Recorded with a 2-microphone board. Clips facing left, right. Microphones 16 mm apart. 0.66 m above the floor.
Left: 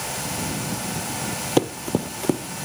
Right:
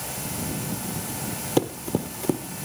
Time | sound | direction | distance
1.6 | running footsteps | 10° left (ahead or behind) | 0.9 m